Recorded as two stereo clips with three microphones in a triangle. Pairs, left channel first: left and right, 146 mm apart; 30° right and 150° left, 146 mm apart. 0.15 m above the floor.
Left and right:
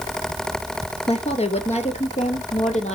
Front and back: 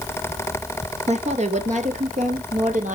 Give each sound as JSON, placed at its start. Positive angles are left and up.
{"t": 1.1, "sound": "a woman speaking", "azimuth_deg": 125, "distance_m": 2.5}